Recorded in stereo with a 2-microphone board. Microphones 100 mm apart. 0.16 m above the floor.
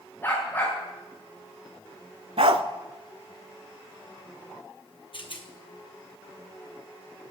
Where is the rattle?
55° left (ahead or behind), 1.3 m.